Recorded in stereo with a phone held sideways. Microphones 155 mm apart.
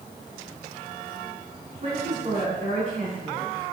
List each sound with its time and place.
1.8 s a man speaking: 55° right (ahead or behind), 3.5 m